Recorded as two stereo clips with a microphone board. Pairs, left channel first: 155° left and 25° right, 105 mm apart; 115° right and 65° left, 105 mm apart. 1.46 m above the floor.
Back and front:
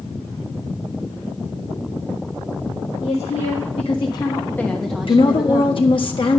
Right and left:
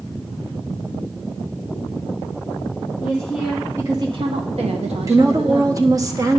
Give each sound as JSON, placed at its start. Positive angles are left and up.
{"t": 3.0, "sound": "a woman speaking", "azimuth_deg": 165, "distance_m": 1.6}
{"t": 5.1, "sound": "a woman speaking", "azimuth_deg": 125, "distance_m": 1.4}